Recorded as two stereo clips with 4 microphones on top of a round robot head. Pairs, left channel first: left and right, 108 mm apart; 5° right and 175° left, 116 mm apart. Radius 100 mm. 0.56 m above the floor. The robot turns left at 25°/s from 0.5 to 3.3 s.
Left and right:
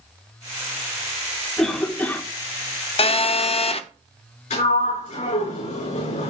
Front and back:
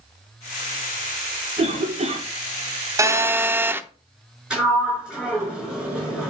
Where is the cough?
175° left, 1.5 m; by 2.2 s 160° left, 1.5 m.